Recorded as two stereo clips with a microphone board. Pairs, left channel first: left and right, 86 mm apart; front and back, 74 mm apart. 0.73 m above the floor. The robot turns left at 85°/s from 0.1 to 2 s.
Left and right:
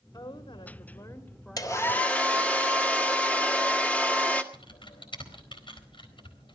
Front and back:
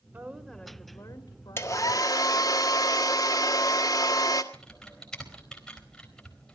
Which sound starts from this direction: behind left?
A woman speaking, at 0.1 s.